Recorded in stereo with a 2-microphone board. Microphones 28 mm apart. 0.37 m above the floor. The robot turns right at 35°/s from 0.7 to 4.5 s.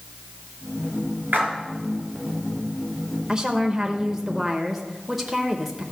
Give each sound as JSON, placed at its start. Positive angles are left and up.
{"t": 1.3, "sound": "a splash", "side_deg": -80, "distance_m": 3.5}
{"t": 3.3, "sound": "a woman speaking", "azimuth_deg": -55, "distance_m": 0.9}